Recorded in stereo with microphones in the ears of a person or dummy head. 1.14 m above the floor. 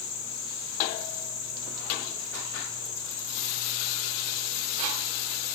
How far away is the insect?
About 3 m.